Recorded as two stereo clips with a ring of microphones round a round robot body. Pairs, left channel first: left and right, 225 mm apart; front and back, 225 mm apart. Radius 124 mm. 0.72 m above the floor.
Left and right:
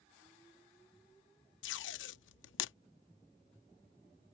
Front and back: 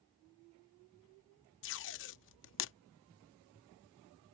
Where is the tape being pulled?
45° left.